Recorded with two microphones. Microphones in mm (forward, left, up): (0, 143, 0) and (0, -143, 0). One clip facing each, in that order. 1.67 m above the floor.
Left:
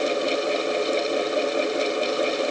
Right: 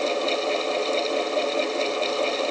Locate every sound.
Only background noise.